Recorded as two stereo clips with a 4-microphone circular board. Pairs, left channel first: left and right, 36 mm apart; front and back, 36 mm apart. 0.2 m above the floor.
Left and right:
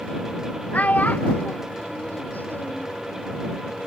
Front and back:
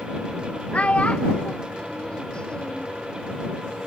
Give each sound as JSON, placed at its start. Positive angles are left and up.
{"t": 0.7, "sound": "a child speaking", "azimuth_deg": 50}